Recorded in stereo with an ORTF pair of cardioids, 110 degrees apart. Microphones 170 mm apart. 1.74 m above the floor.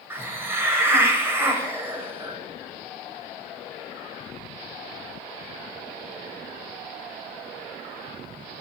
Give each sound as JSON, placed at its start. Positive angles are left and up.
{"t": 0.1, "sound": "a hiss", "azimuth_deg": -15, "distance_m": 0.9}